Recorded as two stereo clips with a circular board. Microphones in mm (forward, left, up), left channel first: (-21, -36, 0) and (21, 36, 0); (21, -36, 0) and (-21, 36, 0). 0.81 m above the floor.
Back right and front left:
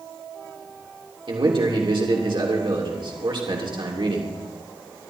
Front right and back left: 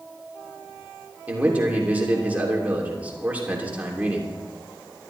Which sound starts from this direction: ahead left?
A man speaking, at 1.3 s.